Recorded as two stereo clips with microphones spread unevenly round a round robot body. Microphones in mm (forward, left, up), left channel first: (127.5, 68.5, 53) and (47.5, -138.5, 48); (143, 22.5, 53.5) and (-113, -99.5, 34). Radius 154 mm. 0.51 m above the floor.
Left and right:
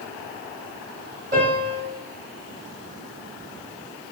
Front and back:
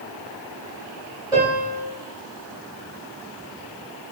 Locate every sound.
1.3 s a piano: 80° right, 2 m